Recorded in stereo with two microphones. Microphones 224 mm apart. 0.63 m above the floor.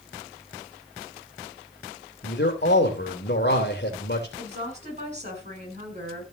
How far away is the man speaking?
About 2.5 m.